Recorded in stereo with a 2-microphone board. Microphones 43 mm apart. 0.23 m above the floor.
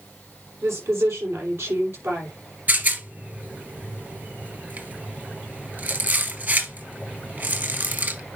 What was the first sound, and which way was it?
A woman speaking, 75° right (ahead or behind).